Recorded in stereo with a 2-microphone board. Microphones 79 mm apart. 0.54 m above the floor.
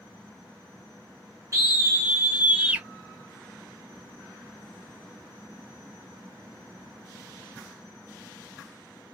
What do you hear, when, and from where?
1.5 s a scream: 40° right (ahead or behind), 0.9 m; by 2.9 s 20° right (ahead or behind), 1.3 m